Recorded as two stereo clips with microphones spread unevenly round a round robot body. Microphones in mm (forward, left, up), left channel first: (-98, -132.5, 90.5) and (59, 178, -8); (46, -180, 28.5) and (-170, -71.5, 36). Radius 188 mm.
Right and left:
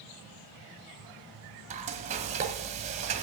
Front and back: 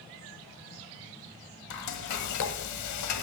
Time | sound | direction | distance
1.7 | frying | 15° right | 0.9 m